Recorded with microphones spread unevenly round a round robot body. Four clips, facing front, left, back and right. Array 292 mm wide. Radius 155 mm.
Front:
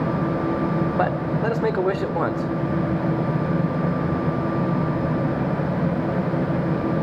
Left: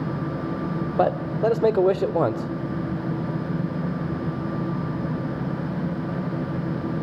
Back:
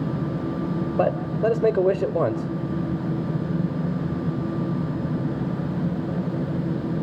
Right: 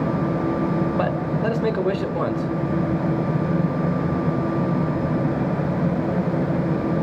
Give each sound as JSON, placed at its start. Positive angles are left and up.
{"t": 1.0, "sound": "a man speaking", "azimuth_deg": 110, "distance_m": 1.2}